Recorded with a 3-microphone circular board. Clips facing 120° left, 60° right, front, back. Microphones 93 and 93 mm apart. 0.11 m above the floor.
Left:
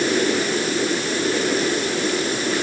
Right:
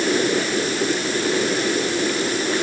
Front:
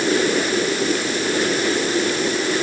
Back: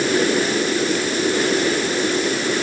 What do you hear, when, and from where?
Only background noise.